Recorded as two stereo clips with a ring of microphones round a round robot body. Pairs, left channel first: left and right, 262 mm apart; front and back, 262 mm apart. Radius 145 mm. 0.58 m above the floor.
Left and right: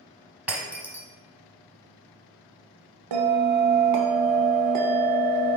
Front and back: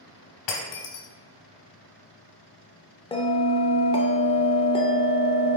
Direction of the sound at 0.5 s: 5° right.